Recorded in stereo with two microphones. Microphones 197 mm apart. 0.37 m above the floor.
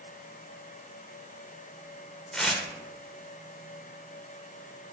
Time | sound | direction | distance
2.3 | tearing paper | 5° left (ahead or behind) | 0.5 m